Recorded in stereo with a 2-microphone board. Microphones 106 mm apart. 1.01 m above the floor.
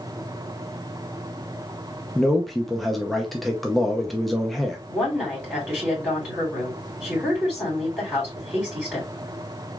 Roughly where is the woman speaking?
Centre.